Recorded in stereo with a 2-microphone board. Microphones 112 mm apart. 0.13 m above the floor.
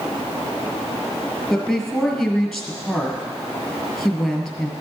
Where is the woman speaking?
Centre (ahead or behind), 2 m.